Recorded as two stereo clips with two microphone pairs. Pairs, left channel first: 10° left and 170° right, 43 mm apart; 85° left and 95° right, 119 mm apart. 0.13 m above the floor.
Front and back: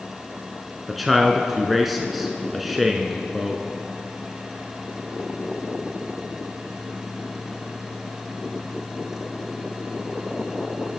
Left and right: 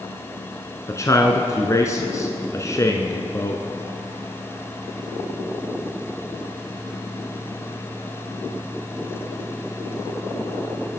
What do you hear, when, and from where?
0.9 s a man speaking: 105° left, 1.1 m